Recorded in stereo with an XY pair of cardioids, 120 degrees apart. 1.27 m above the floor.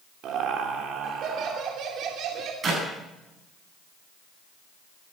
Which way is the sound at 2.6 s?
40° right.